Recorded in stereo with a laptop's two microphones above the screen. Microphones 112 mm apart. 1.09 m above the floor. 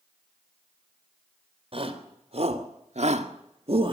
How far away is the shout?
About 3.5 m.